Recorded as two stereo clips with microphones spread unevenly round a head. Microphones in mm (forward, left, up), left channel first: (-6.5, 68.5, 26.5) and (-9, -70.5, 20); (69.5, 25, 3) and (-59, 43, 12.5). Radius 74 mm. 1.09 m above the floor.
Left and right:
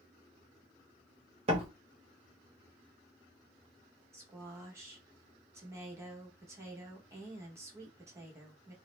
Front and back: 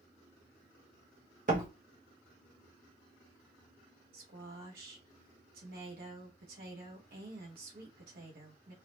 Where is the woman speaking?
160° right, 1.3 m.